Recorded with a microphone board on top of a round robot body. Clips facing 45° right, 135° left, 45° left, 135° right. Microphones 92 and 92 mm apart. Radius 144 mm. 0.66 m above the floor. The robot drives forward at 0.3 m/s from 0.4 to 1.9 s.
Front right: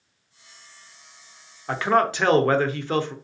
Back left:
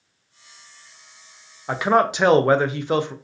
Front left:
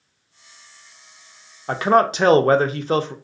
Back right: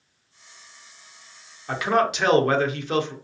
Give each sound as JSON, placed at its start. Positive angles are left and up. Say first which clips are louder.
{"t": 1.7, "sound": "a man speaking", "louder": "back left 2 dB, front left 5 dB", "azimuth_deg": 60, "distance_m": 0.6}